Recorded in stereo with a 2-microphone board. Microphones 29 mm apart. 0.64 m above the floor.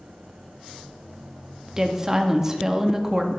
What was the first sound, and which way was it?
A woman speaking, 15° right (ahead or behind).